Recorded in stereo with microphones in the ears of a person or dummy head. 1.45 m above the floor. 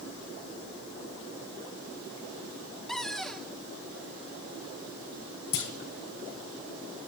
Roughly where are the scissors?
No scissors in this recording.